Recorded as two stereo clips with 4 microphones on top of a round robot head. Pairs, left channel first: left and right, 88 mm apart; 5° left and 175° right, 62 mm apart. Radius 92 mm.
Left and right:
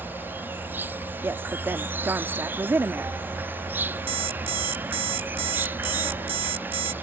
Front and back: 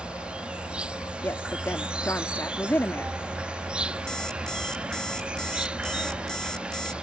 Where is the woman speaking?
35° right.